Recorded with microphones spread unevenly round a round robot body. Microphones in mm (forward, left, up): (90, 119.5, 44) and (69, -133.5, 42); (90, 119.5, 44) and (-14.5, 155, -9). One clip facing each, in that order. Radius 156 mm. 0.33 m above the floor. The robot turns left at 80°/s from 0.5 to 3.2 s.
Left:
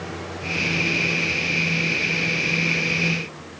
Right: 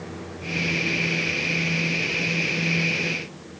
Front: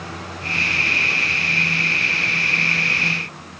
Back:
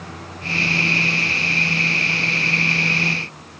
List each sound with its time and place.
Only background noise.